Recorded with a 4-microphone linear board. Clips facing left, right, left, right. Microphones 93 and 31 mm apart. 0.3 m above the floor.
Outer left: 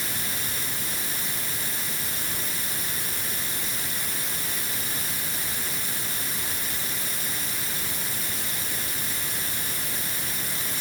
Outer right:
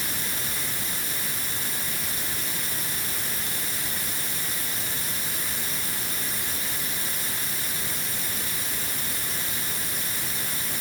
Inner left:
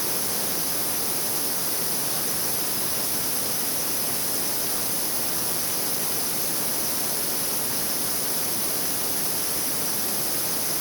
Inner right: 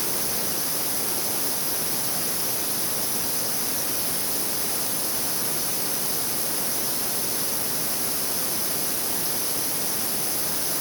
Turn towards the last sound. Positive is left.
No sound to turn to.